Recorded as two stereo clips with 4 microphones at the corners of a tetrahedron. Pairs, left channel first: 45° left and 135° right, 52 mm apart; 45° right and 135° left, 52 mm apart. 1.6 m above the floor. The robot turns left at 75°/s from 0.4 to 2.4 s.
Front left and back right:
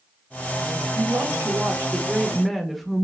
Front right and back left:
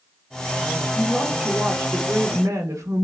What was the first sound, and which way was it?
A woman speaking, 115° right.